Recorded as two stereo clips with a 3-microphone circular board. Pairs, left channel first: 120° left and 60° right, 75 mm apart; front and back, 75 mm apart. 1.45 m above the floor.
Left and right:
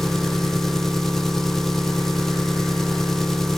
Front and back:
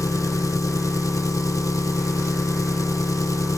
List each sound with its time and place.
0.0 s an engine running: 35° left, 0.9 m